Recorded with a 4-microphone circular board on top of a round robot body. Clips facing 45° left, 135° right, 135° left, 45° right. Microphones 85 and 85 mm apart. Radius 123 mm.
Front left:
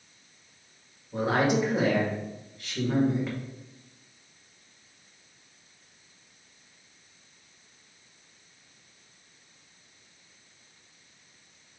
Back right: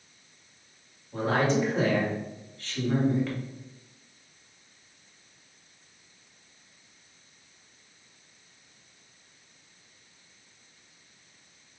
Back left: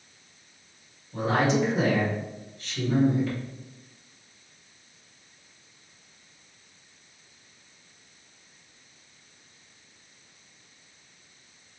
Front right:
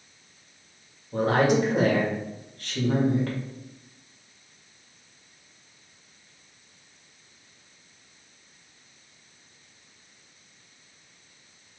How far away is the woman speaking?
About 1.7 m.